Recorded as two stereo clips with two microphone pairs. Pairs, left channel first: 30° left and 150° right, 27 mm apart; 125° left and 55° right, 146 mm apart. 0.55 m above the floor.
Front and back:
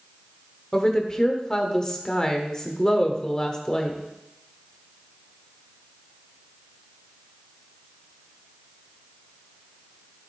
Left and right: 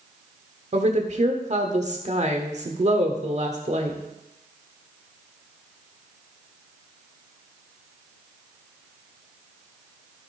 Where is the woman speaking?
30° right, 1.5 m.